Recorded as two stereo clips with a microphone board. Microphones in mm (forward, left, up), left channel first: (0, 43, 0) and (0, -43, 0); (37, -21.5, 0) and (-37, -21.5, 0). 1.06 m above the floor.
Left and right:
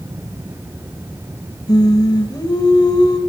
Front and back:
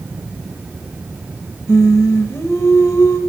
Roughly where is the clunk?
I don't hear a clunk.